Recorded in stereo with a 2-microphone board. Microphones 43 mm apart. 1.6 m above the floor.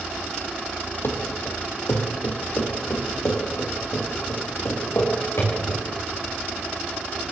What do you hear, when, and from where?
1.0 s running footsteps: 60° left (ahead or behind), 3.5 m; by 5.8 s 80° left, 8.5 m